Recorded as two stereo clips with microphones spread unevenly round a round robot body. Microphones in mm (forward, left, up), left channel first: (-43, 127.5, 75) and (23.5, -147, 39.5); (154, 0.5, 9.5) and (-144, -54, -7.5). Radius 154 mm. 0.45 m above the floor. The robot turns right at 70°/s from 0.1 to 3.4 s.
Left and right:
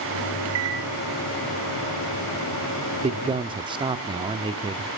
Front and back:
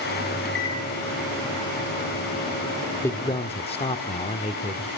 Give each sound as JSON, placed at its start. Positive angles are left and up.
{"t": 0.5, "sound": "a microwave", "azimuth_deg": -50, "distance_m": 3.5}
{"t": 3.0, "sound": "a man speaking", "azimuth_deg": -70, "distance_m": 0.9}